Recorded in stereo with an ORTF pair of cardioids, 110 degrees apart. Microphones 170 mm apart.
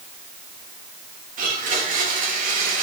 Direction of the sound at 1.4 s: 50° right.